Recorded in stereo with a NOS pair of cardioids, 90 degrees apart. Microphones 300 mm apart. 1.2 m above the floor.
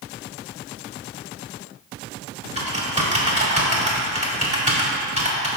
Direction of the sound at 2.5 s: 20° right.